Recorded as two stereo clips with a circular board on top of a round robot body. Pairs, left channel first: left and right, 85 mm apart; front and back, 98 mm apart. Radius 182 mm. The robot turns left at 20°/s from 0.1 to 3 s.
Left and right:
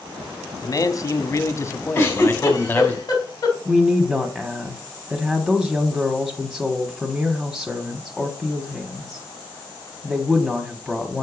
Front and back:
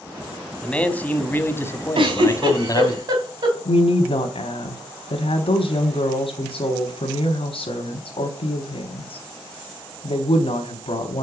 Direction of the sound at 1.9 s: 155° left.